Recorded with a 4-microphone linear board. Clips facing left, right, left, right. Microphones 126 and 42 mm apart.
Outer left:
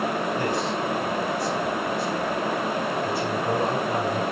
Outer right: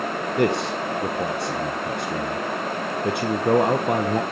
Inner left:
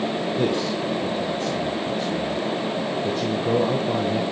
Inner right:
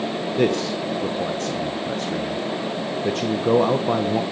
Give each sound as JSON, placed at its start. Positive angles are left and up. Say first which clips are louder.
{"t": 0.4, "sound": "a man speaking", "louder": "outer right 3 dB, inner right 4 dB", "side_deg": -70, "distance_m": 1.1}